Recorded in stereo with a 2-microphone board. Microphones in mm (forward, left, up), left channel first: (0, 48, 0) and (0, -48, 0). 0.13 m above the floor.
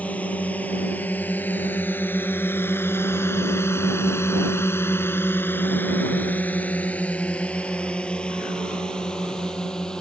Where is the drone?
15° left (ahead or behind); by 10.0 s 5° left (ahead or behind).